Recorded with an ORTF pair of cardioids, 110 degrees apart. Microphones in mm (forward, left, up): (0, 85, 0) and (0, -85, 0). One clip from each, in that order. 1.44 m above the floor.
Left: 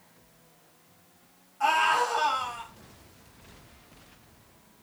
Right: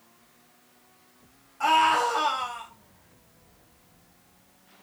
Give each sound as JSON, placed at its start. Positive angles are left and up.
{"t": 1.6, "sound": "a scream", "azimuth_deg": -25, "distance_m": 6.5}